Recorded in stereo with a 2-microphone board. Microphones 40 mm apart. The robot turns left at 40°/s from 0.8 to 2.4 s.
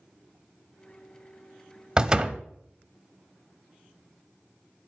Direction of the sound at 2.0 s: 20° right (ahead or behind).